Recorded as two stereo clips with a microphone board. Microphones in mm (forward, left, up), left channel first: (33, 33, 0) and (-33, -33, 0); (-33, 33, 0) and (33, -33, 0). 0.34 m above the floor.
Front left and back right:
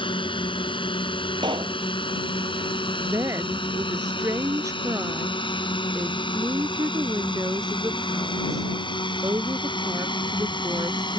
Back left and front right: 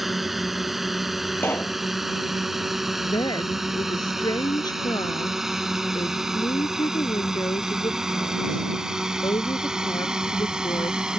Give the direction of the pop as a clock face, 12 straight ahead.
5 o'clock.